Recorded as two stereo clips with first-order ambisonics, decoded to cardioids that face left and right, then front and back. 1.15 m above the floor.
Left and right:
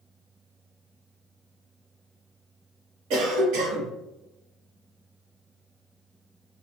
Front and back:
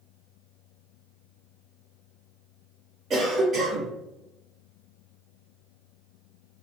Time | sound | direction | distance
3.1 | a cough | 115° right | 1.1 m